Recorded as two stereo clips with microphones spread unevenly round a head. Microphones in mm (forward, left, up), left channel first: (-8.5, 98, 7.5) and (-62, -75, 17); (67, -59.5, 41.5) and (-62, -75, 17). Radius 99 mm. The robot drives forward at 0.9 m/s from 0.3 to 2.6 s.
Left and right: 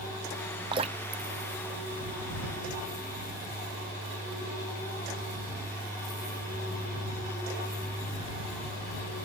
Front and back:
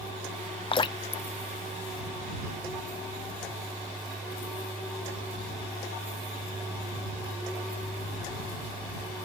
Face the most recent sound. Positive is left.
turn(degrees=-155)